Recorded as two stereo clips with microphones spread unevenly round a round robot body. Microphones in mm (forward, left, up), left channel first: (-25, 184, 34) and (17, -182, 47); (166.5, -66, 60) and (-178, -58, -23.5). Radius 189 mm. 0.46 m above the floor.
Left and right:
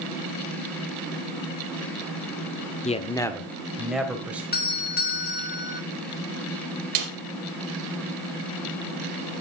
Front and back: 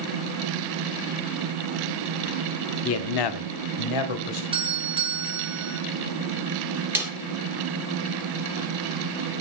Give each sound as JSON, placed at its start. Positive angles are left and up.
{"t": 2.9, "sound": "a man speaking", "azimuth_deg": 50, "distance_m": 0.8}
{"t": 4.5, "sound": "a doorbell", "azimuth_deg": 140, "distance_m": 1.6}
{"t": 7.0, "sound": "a snare drum", "azimuth_deg": -95, "distance_m": 2.5}